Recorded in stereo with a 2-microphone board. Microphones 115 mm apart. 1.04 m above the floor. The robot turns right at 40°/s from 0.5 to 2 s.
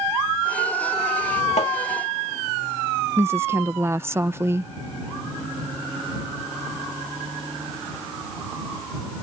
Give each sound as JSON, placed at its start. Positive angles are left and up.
{"t": 1.6, "sound": "tapping", "side_deg": 70}
{"t": 3.2, "sound": "a woman speaking", "side_deg": -20}